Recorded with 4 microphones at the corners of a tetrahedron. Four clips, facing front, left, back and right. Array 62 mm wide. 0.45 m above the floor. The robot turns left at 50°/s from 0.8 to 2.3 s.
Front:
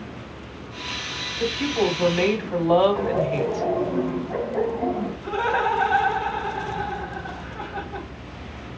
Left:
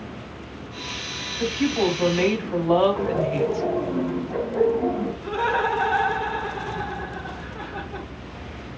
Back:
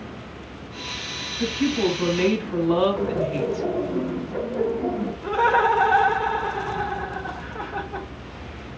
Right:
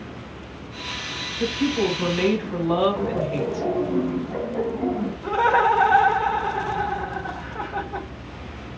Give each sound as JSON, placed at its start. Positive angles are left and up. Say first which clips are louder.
{"t": 1.4, "sound": "a woman speaking", "louder": "even, even", "azimuth_deg": 65, "distance_m": 3.5}
{"t": 3.0, "sound": "laughter", "louder": "left 2 dB, front 1 dB", "azimuth_deg": 15, "distance_m": 3.0}
{"t": 5.2, "sound": "laughter", "louder": "right 6 dB, back 4 dB", "azimuth_deg": -135, "distance_m": 0.8}